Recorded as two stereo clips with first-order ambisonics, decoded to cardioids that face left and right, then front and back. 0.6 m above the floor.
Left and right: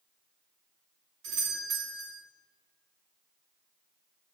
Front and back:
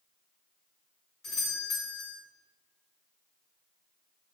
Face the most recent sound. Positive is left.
turn(degrees=-60)